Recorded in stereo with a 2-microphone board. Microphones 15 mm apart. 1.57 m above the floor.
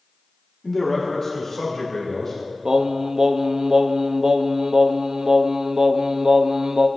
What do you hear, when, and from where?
0.6 s a man speaking: 15° left (ahead or behind), 1.5 m; by 2.3 s 35° left (ahead or behind), 3 m
2.6 s singing: 60° right (ahead or behind), 0.6 m